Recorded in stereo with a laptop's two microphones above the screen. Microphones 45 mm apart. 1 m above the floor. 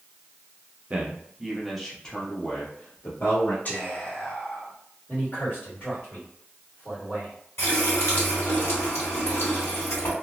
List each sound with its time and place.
0.9 s a man speaking: 30° right (ahead or behind), 0.9 m; by 3.5 s 55° left (ahead or behind), 1.2 m
3.6 s whispering: 40° left (ahead or behind), 1.2 m
5.1 s a man speaking: 45° left (ahead or behind), 1.7 m
7.6 s a running tap: 75° left (ahead or behind), 1.7 m